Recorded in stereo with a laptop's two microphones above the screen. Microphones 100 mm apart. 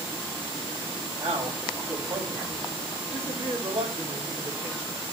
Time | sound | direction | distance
1.2 | a man speaking | 85° right | 5.5 m